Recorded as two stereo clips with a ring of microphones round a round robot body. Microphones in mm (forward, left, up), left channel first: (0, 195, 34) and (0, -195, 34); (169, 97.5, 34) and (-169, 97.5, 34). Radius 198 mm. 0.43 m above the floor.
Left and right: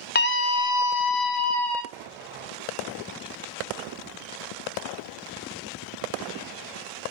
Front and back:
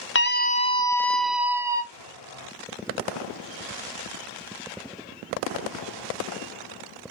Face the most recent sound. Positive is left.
turn(degrees=-25)